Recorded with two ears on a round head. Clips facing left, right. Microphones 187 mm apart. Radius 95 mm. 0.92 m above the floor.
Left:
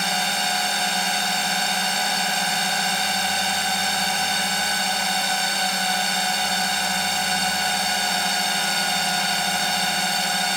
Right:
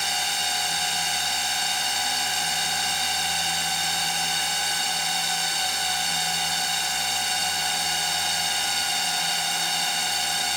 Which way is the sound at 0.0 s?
50° left (ahead or behind).